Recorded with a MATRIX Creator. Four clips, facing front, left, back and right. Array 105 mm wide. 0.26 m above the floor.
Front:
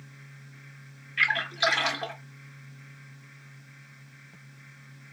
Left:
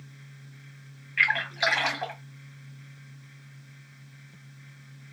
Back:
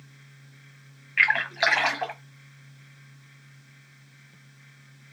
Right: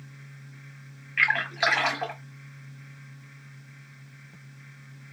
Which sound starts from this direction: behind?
A splash, at 1.2 s.